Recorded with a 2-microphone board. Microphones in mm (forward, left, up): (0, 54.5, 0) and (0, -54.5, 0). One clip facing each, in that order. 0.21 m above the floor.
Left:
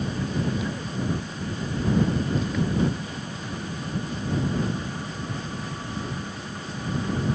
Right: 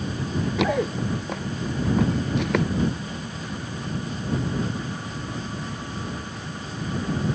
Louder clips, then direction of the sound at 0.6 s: Right 7 dB; 80° right.